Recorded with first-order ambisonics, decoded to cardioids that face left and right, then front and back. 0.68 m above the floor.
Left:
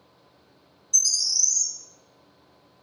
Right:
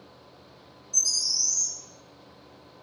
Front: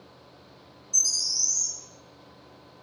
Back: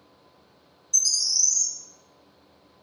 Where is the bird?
115° left, 0.5 m.